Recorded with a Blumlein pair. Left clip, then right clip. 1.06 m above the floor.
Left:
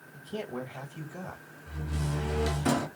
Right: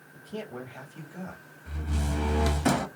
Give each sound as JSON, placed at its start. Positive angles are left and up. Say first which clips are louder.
{"t": 0.1, "sound": "a man speaking", "louder": "left 2 dB", "azimuth_deg": 10, "distance_m": 1.0}
{"t": 1.7, "sound": "a door slam", "louder": "right 2 dB", "azimuth_deg": -70, "distance_m": 1.2}